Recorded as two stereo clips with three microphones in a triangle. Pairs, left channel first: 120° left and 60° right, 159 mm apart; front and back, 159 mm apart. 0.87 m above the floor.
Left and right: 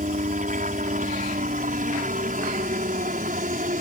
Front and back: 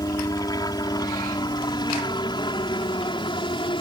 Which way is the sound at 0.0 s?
60° right.